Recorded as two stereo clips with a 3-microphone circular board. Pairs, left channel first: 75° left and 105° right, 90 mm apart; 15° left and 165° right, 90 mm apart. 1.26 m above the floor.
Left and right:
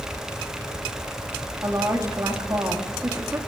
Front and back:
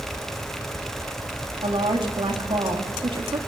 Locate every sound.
1.6 s a woman speaking: 160° right, 3 m